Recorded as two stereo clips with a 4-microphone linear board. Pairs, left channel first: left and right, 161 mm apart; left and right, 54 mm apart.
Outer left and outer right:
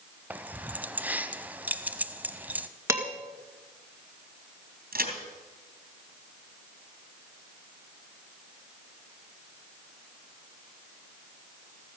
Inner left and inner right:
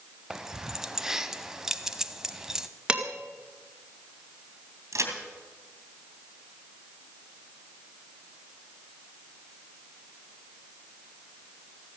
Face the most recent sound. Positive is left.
turn(degrees=-70)  # may be behind; listen again after turning